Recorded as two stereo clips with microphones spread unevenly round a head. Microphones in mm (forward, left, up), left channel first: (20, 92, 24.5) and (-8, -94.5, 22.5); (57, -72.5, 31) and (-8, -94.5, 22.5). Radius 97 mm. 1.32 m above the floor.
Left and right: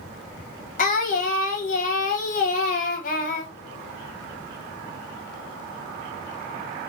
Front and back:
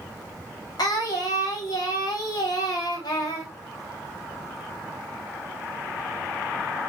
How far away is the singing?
About 0.7 m.